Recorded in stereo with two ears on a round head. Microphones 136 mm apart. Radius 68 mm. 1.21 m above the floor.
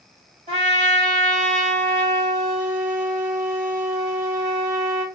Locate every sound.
0.5 s a trumpet: 40° right (ahead or behind), 1.8 m